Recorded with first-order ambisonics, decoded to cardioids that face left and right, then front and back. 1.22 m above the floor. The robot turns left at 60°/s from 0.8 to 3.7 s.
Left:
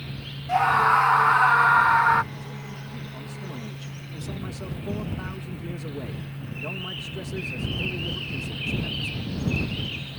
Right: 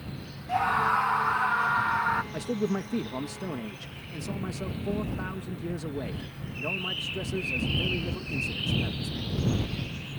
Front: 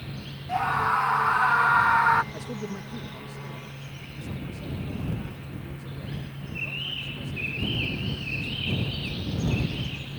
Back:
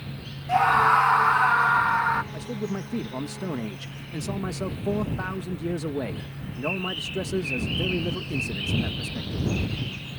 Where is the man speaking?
90° right; by 9.5 s 170° right.